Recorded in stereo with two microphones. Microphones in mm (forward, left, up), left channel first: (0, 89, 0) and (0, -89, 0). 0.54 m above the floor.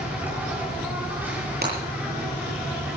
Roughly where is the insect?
Centre.